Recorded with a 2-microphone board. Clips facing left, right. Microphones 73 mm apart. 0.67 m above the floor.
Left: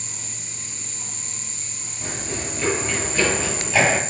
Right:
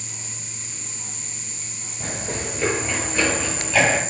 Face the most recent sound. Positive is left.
turn(degrees=20)  # may be behind; listen again after turning